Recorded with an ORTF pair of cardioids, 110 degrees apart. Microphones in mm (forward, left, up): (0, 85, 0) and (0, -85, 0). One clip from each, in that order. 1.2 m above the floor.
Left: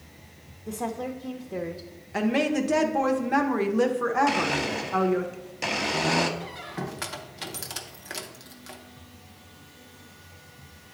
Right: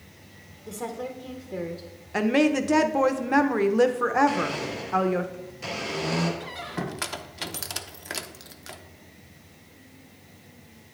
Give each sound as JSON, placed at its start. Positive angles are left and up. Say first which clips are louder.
{"t": 0.7, "sound": "a woman speaking", "louder": "left 2 dB", "azimuth_deg": 5, "distance_m": 0.6}
{"t": 2.1, "sound": "a woman speaking", "louder": "right 3 dB", "azimuth_deg": -15, "distance_m": 0.6}
{"t": 4.3, "sound": "a blender", "louder": "left 2 dB", "azimuth_deg": 65, "distance_m": 1.0}
{"t": 6.4, "sound": "a squeak", "louder": "right 2 dB", "azimuth_deg": -15, "distance_m": 0.5}